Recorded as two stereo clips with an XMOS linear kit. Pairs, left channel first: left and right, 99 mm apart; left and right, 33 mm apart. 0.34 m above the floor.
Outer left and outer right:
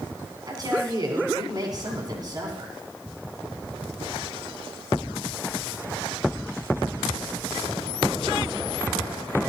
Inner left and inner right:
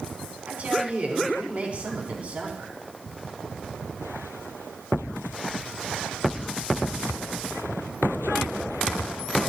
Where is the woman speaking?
40° right (ahead or behind), 3.5 m.